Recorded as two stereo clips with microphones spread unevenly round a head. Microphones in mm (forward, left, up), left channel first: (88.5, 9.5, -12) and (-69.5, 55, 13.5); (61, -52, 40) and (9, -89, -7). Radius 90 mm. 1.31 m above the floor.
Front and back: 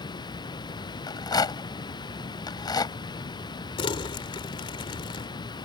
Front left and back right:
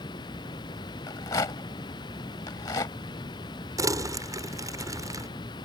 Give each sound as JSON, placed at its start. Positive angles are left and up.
{"t": 0.0, "sound": "running water", "azimuth_deg": 50}
{"t": 1.1, "sound": "a rattle", "azimuth_deg": 50}
{"t": 3.8, "sound": "crumpling", "azimuth_deg": -80}